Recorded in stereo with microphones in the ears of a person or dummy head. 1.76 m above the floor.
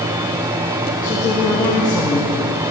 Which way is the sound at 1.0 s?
20° left (ahead or behind).